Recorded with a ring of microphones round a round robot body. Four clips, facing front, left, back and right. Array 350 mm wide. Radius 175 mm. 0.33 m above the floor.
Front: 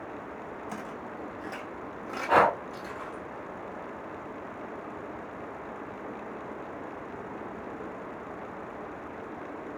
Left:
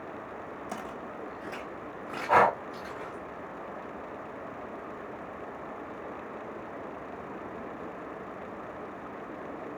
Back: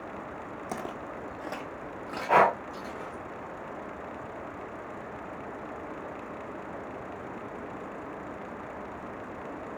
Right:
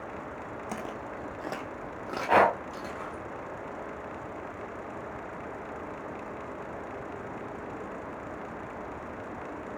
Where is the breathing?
85° right, 2 m.